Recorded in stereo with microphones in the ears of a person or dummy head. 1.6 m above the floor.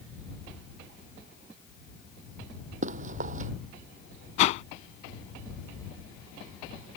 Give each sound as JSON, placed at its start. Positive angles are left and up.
{"t": 2.8, "sound": "running footsteps", "side_deg": -45}
{"t": 4.4, "sound": "a whoosh", "side_deg": 40}